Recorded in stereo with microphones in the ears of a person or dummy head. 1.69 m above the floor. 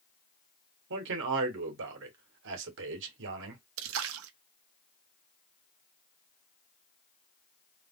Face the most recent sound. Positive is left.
turn(degrees=-80)